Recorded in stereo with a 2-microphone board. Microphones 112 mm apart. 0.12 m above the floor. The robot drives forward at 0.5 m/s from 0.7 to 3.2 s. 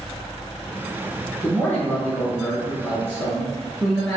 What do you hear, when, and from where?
1.4 s a man speaking: 15° left (ahead or behind), 1.1 m; by 4.2 s 10° left (ahead or behind), 1.2 m